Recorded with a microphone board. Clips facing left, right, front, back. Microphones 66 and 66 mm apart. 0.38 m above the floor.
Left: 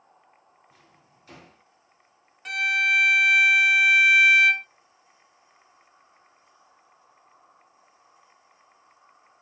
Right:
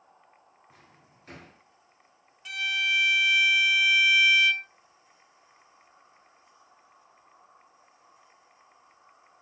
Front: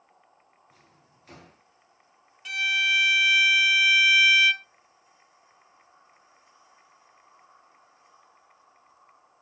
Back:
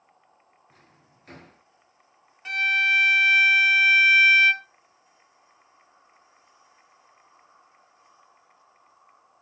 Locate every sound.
0.7 s a drawer: 135° right, 3.5 m
2.5 s a violin: 125° left, 0.5 m